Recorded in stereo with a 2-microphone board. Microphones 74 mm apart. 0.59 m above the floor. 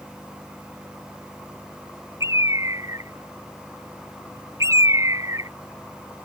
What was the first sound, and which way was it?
A bird, 45° right (ahead or behind).